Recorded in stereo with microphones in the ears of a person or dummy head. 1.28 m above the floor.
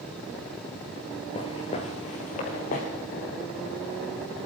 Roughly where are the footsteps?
Left.